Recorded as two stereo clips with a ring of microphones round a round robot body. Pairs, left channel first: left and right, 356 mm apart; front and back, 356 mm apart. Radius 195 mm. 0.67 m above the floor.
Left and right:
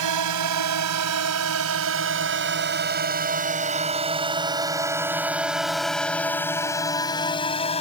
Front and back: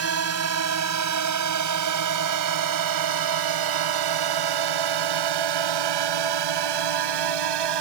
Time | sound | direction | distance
0.0 | a drone | 135° right | ?